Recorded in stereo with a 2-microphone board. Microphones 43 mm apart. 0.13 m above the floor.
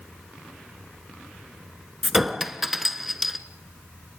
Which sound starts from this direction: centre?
A clink, at 2.0 s.